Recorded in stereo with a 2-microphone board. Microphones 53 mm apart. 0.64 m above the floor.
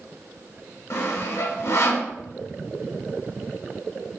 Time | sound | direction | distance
0.9 | sawing | 65° left (ahead or behind) | 0.9 m